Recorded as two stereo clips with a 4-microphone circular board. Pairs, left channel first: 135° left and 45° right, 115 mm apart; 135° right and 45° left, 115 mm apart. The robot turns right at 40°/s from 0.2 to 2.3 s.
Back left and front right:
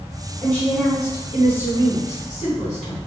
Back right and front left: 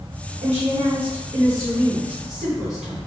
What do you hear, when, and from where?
0.4 s a woman speaking: 55° left, 1.9 m; by 3.0 s 130° left, 1.9 m